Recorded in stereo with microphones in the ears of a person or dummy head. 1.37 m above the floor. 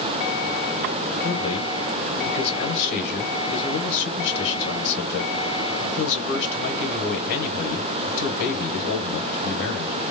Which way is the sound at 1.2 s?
55° left (ahead or behind).